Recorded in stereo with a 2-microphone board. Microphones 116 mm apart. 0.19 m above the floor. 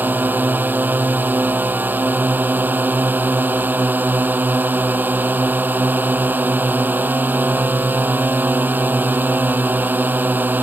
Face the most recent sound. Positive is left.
turn(degrees=-15)  # may be behind; listen again after turning